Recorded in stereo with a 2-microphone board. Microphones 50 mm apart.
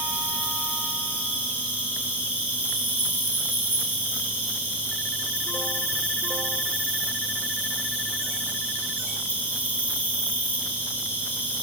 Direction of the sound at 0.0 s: 40° right (ahead or behind).